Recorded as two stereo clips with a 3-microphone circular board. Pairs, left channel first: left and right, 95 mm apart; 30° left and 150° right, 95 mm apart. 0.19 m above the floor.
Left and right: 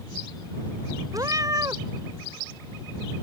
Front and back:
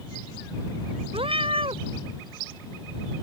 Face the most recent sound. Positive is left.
turn(degrees=-140)